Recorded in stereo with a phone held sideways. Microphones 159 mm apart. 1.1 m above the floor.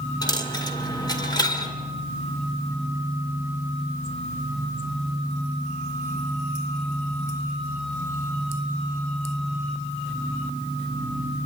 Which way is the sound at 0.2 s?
25° left (ahead or behind).